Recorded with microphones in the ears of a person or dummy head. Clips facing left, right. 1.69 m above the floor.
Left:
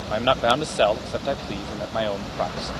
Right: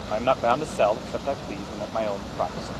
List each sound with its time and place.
0.1 s a man speaking: 20° left (ahead or behind)